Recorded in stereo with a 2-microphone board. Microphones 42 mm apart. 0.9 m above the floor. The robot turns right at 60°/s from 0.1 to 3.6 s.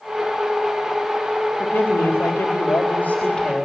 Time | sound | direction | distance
1.6 | a man speaking | 55° left | 3.5 m